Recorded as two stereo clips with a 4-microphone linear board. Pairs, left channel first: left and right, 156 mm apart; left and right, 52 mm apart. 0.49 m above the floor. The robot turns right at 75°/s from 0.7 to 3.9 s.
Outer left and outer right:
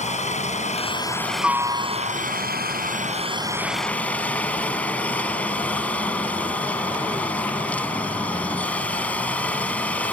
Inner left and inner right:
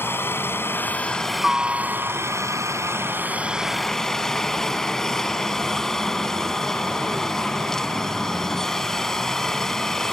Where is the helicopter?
130° left; by 10.1 s 10° left.